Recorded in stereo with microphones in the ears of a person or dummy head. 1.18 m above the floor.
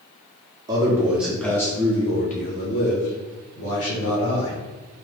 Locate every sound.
0.7 s a man speaking: 15° right (ahead or behind), 1.2 m; by 4.5 s 75° left (ahead or behind), 2.5 m